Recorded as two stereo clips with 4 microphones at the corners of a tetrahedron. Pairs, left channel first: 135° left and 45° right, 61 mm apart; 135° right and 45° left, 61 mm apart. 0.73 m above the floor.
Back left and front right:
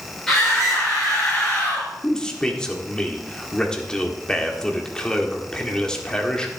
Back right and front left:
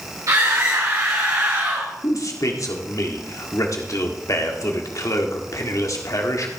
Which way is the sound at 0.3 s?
50° left.